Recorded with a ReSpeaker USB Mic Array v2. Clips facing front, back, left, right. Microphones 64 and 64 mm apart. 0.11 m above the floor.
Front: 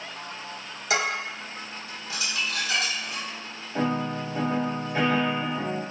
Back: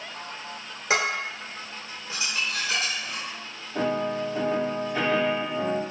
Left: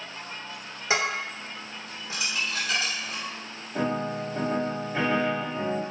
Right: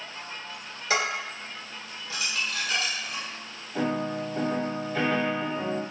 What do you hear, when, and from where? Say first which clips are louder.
0.9 s dishes clattering: back 1 dB, left 1 dB; 145° left, 1.3 m
3.8 s a piano: back 1 dB, even; 45° left, 1.3 m